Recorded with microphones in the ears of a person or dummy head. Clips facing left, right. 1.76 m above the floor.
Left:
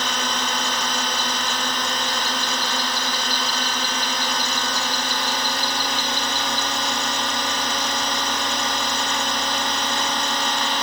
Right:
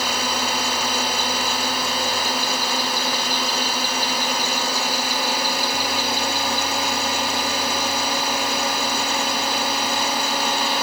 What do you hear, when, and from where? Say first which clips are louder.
0.0 s a drone: right 2 dB; 10° right (ahead or behind)